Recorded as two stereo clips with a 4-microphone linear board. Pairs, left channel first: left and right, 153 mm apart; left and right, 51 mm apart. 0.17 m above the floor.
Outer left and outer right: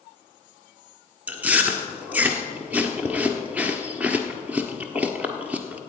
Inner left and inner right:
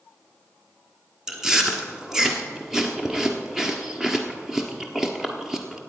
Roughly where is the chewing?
Centre.